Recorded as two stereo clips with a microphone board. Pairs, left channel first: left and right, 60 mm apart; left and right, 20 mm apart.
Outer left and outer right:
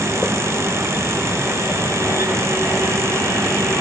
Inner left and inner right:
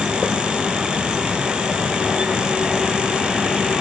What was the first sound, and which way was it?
Only background noise.